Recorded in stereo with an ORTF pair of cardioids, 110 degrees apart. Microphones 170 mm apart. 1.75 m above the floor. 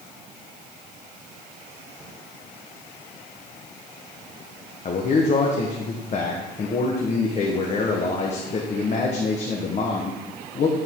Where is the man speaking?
40° left, 1.3 m.